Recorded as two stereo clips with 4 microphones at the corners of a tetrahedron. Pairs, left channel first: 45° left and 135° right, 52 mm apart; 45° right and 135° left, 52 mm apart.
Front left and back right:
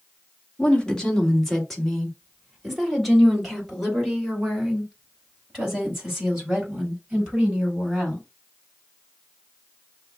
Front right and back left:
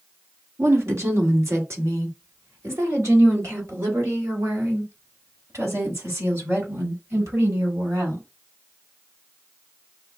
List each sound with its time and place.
0.6 s a woman speaking: 115° left, 1.3 m; by 8.3 s 150° left, 5 m